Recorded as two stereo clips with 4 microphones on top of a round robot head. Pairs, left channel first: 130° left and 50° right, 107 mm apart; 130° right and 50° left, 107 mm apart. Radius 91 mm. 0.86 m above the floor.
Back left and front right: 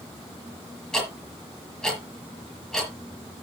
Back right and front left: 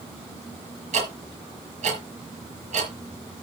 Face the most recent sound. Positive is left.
turn(degrees=45)